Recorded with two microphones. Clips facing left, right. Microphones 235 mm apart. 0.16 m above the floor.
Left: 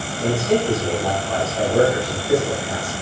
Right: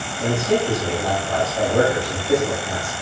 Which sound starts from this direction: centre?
A man speaking, at 0.2 s.